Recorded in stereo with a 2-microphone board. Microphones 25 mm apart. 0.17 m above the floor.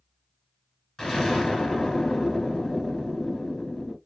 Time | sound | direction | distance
1.0 | an explosion | 20° left (ahead or behind) | 1.2 m